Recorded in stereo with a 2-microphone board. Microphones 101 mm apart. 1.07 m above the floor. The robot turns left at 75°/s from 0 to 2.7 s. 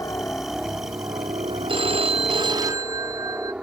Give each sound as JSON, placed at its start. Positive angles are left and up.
{"t": 0.0, "sound": "a helicopter", "side_deg": 35}
{"t": 1.7, "sound": "a phone ringing", "azimuth_deg": -65}